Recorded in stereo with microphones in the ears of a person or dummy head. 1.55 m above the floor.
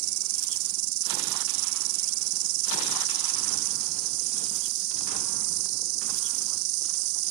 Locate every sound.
0.0 s an insect: 75° right (ahead or behind)